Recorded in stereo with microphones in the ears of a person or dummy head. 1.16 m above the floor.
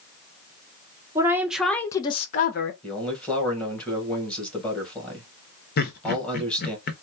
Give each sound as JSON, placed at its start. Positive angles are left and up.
{"t": 1.1, "sound": "a woman speaking", "side_deg": -10, "distance_m": 0.9}
{"t": 2.8, "sound": "a man speaking", "side_deg": 10, "distance_m": 1.6}
{"t": 5.8, "sound": "laughter", "side_deg": 50, "distance_m": 0.9}